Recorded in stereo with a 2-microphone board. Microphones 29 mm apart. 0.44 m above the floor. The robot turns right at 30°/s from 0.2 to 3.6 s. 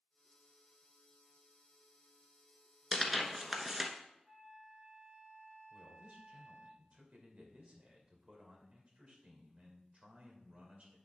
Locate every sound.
2.9 s tearing paper: 5° left (ahead or behind), 1.0 m; by 3.9 s 15° right (ahead or behind), 1.0 m
4.2 s a flute: 40° right (ahead or behind), 2 m
5.7 s a man speaking: 45° right (ahead or behind), 2.0 m